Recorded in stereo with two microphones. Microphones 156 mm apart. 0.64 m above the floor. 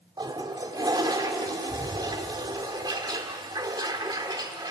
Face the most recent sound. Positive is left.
turn(degrees=-25)  # may be behind; listen again after turning